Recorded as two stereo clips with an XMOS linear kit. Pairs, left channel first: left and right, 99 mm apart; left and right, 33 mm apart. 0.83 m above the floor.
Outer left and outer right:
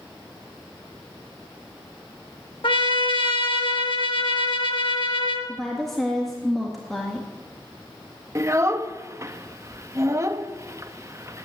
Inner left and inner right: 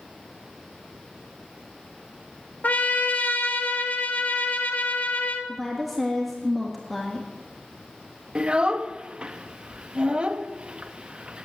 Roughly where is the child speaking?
Right.